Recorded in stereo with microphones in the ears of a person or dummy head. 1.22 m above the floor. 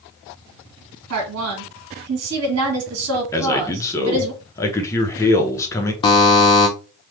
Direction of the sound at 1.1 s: 80° right.